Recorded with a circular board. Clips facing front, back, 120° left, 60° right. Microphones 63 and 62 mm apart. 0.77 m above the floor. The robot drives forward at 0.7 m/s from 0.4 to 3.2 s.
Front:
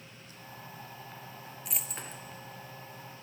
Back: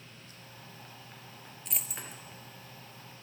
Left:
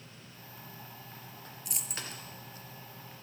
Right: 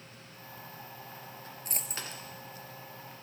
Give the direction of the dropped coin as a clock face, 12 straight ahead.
3 o'clock.